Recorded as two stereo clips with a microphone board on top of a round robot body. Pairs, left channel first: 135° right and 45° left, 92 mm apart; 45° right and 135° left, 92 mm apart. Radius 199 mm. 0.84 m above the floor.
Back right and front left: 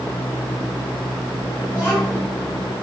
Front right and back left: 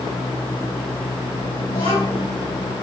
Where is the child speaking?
65° right, 6.5 m.